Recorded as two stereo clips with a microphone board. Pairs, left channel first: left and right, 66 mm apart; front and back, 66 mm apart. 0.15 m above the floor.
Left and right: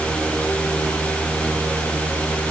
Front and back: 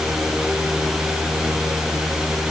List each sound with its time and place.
Only background noise.